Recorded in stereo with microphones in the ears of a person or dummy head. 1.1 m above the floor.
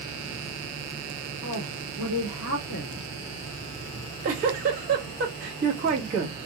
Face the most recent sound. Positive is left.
turn(degrees=-45)  # may be behind; listen again after turning